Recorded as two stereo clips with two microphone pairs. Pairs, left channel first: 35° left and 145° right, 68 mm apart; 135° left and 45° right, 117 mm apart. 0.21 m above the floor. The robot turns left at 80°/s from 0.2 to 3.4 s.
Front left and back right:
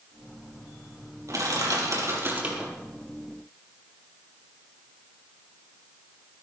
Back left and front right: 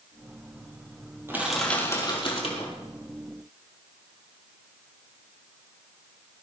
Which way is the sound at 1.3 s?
115° right.